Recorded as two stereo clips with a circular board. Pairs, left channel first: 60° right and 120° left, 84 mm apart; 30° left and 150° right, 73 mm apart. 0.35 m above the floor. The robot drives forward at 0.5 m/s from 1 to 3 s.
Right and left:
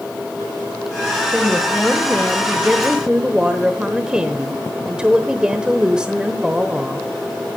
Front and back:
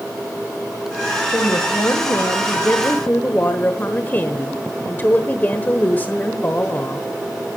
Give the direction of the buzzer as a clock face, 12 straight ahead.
No buzzer in this recording.